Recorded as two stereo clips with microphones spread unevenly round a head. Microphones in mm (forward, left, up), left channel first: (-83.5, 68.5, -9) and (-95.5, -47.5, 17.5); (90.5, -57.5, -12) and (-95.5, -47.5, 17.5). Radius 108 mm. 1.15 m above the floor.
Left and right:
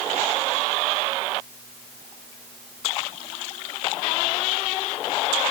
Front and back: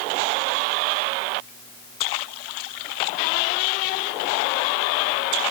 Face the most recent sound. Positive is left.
No sound to turn to.